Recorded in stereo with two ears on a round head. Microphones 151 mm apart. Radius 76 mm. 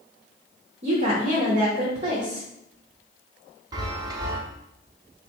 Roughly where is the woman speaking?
Right.